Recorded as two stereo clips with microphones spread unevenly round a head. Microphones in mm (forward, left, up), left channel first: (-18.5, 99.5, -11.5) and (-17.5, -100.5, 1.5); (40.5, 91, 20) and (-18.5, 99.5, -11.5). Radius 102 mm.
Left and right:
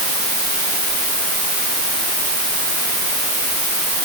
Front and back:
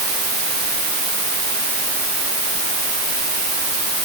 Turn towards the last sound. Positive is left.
No sound to turn to.